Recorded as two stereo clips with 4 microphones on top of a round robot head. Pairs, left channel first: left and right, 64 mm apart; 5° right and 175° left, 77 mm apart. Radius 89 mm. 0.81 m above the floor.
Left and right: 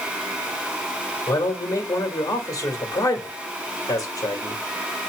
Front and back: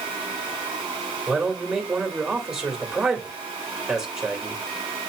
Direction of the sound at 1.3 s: 100° left.